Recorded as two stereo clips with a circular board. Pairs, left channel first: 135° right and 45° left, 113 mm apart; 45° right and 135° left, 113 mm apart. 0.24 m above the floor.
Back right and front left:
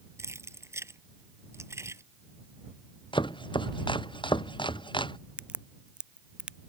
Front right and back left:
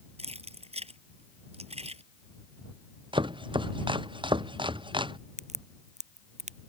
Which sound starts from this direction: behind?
Chopping, at 3.1 s.